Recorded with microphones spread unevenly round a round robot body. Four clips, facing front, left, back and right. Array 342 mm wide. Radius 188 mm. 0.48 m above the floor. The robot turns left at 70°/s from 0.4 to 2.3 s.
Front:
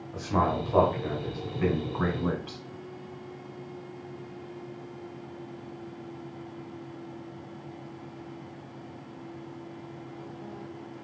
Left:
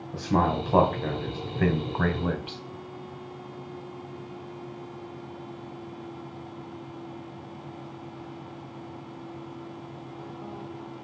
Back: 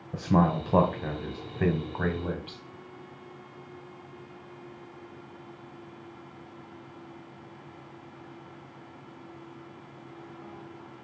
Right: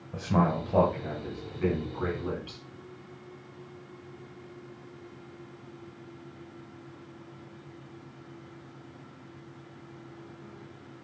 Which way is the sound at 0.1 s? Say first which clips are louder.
Left 2 dB, back 2 dB; 170° right.